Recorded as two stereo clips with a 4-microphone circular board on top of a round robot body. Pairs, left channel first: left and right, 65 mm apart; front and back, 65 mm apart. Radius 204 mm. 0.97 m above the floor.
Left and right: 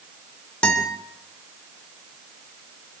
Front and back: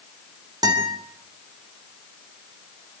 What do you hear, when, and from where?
0.6 s a guitar: 165° left, 3.5 m